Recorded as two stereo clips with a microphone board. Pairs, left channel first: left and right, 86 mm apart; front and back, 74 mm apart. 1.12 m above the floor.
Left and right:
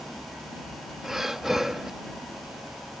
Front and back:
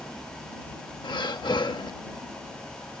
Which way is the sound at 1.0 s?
5° right.